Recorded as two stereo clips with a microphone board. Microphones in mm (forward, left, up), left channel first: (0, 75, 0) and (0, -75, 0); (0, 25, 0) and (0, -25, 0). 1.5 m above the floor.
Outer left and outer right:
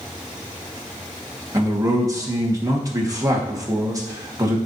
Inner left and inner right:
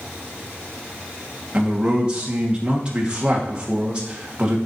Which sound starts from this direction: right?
A man speaking, at 1.5 s.